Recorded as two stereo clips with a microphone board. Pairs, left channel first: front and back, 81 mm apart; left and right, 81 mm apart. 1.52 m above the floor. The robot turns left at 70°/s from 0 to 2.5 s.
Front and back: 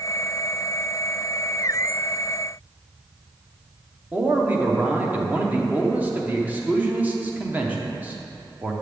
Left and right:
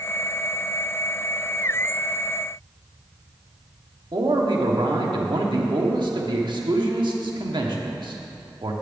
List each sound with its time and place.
4.1 s a man speaking: 110° right, 0.9 m